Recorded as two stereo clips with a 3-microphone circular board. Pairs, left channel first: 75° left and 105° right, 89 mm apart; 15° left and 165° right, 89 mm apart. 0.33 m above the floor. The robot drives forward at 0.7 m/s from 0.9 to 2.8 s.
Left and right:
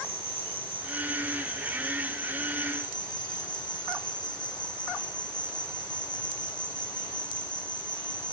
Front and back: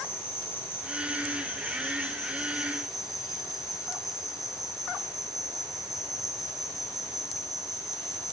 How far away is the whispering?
No whispering in this recording.